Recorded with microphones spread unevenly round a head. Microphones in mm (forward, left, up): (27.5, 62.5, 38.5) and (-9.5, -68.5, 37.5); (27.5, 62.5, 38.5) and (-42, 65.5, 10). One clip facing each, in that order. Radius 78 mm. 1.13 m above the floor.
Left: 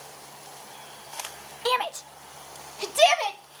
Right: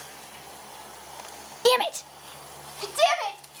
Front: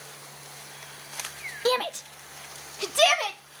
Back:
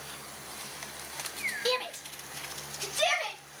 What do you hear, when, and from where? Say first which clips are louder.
1.6 s a shout: right 6 dB, front 8 dB; 75° right, 0.7 m; by 3.4 s 10° left, 2 m